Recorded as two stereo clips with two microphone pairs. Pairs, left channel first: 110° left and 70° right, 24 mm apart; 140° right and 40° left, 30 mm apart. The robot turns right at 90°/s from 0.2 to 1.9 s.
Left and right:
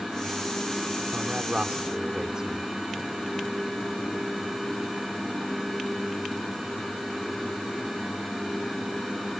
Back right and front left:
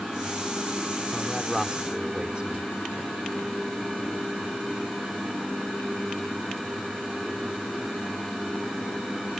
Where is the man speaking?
85° right; by 2.7 s 15° right.